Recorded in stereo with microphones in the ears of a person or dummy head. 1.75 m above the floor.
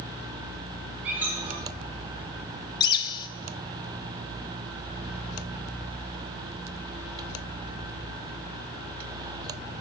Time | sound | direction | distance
1.0 | a squeak | 15° right (ahead or behind) | 4 m
2.8 | a bird | 20° left (ahead or behind) | 0.5 m